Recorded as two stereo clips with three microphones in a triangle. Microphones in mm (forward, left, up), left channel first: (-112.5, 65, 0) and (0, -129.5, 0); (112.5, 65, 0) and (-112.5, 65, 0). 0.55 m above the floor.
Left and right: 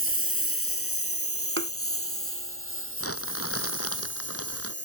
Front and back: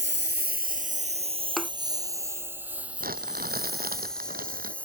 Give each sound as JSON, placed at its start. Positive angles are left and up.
{"t": 0.0, "sound": "a lawn mower", "azimuth_deg": 145}
{"t": 1.6, "sound": "a thud", "azimuth_deg": -90}
{"t": 3.0, "sound": "crumpling", "azimuth_deg": 130}